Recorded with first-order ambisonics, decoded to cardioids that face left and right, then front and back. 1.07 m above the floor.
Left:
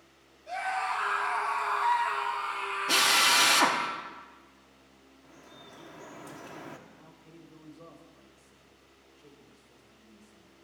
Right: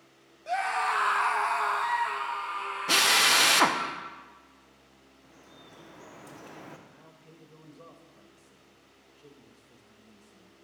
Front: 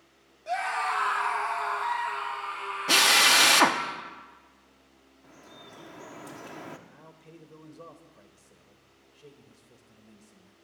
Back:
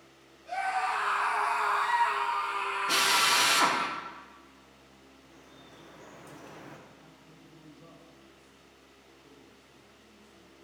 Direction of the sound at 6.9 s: 25° right.